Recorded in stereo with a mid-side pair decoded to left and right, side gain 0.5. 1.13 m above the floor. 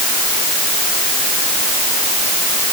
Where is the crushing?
No crushing in this recording.